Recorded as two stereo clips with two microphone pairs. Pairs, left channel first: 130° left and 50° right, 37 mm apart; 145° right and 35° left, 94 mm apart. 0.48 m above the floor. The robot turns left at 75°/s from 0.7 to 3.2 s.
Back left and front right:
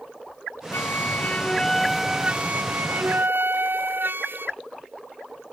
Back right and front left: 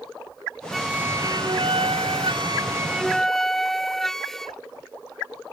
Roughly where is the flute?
Behind left.